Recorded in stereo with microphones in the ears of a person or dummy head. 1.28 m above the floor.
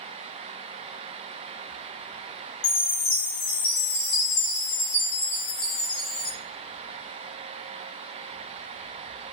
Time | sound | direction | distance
2.6 | a chime | 60° left (ahead or behind) | 1.1 m